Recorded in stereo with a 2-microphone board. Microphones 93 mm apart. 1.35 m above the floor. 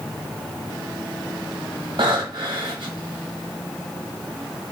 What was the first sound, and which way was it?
Breathing, 55° right (ahead or behind).